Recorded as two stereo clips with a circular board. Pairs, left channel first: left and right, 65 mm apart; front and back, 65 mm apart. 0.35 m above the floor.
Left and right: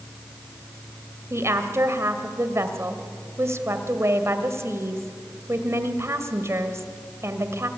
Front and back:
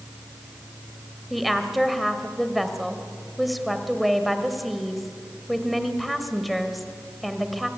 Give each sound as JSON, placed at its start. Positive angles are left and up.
{"t": 1.3, "sound": "a woman speaking", "azimuth_deg": -90, "distance_m": 1.8}